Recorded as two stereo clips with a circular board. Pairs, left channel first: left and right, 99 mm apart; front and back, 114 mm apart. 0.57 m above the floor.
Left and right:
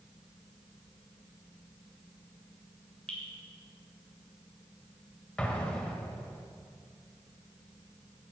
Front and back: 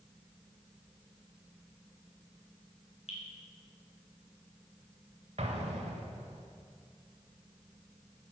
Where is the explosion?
170° left, 1.4 m.